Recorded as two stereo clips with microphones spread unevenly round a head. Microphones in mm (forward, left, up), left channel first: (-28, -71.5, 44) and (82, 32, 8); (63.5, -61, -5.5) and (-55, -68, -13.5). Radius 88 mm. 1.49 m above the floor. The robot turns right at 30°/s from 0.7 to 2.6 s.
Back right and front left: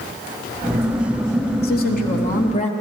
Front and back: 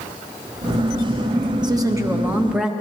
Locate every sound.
1.6 s a woman speaking: 120° right, 1.2 m; by 2.7 s 90° right, 1.2 m